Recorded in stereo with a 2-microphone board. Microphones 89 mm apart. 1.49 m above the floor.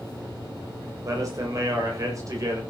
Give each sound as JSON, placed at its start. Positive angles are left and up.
{"t": 1.0, "sound": "a man speaking", "side_deg": -40, "distance_m": 7.0}